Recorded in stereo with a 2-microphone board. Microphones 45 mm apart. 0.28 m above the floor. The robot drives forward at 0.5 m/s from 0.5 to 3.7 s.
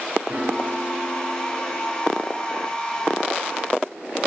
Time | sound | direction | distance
0.3 | a piano | 25° right (ahead or behind) | 2 m